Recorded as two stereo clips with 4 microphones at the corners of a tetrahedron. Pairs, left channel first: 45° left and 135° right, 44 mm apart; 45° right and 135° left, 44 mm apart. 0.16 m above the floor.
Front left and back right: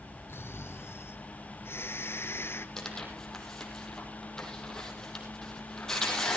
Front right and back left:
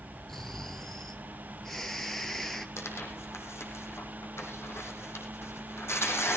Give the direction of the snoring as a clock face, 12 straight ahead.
11 o'clock.